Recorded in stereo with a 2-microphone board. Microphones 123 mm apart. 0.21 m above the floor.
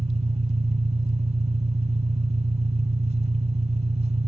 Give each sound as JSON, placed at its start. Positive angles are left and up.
{"t": 0.0, "sound": "an engine running", "side_deg": -65, "distance_m": 1.0}